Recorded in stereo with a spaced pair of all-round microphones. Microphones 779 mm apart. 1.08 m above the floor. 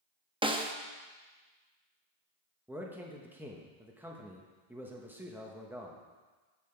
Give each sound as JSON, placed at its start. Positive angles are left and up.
{"t": 0.4, "sound": "a snare drum", "side_deg": -5, "distance_m": 0.6}
{"t": 2.7, "sound": "a man speaking", "side_deg": -5, "distance_m": 0.9}